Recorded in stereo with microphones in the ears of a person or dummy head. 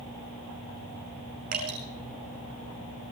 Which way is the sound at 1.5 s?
50° right (ahead or behind).